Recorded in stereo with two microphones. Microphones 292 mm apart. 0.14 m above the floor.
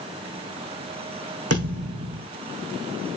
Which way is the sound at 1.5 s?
55° right (ahead or behind).